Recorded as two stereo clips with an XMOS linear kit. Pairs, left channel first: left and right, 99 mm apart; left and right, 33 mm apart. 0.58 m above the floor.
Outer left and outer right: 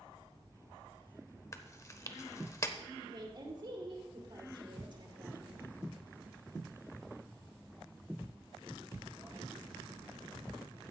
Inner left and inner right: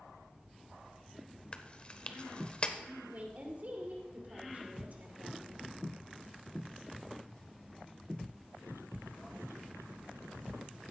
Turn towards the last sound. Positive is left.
turn(degrees=-50)  # may be behind; listen again after turning